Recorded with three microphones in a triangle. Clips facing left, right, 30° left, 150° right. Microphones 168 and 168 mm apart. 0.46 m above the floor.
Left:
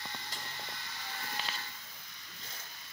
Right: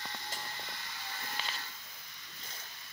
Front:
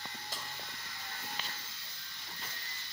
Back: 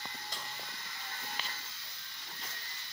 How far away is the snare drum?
About 1.6 m.